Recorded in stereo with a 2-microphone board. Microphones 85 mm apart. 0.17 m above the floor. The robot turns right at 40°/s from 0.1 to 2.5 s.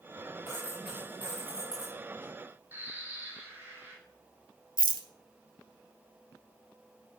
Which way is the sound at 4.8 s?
80° right.